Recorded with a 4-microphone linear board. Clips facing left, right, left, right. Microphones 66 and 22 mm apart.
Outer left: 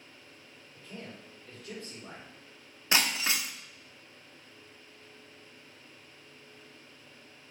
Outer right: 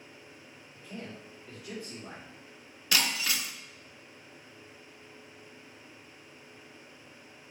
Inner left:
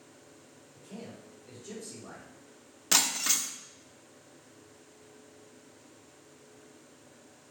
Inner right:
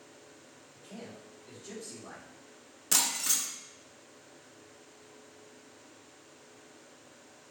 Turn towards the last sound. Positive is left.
turn(degrees=25)  # may be behind; listen again after turning